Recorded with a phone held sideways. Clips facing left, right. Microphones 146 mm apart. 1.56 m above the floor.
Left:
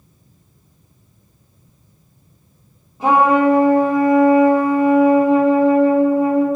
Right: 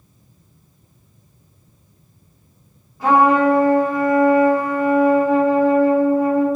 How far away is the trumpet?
About 1.5 m.